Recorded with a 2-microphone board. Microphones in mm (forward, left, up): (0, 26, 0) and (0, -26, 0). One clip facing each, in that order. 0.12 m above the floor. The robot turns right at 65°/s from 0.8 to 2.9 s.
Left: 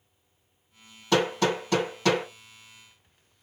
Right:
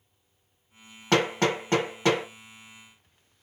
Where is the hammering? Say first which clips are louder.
Even; 55° right (ahead or behind), 2 m; by 2.2 s 10° right (ahead or behind), 2 m.